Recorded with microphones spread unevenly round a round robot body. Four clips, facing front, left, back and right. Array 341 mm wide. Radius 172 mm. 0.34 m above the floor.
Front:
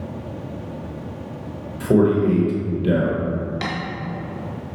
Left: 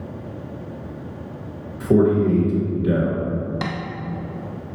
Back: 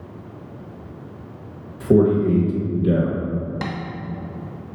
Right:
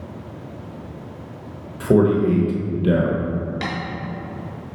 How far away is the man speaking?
About 0.8 m.